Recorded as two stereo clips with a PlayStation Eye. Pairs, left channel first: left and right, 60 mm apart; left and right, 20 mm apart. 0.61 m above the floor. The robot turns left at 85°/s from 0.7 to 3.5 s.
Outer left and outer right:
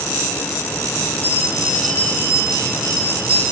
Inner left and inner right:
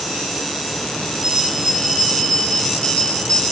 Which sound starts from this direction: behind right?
A bell, at 1.2 s.